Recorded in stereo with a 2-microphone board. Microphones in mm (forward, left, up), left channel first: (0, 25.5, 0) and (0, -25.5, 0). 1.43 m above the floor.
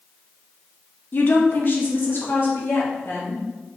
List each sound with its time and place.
1.1 s a woman speaking: 40° left (ahead or behind), 1.1 m; by 3.4 s 50° left (ahead or behind), 2.5 m